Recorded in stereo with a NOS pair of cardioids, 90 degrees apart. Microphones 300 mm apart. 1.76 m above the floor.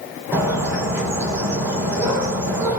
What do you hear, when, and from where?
0.3 s a bird: 10° right, 5.5 m